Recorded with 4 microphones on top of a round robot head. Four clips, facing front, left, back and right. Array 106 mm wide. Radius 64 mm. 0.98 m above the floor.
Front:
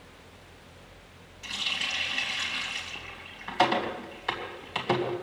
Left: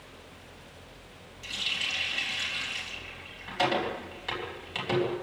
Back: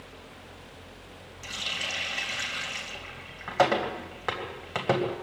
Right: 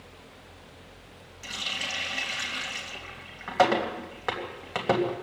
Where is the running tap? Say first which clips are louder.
Right 1 dB, front 1 dB; 135° right, 3 m.